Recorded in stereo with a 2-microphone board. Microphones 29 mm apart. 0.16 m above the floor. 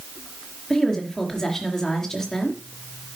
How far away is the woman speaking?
About 3.5 m.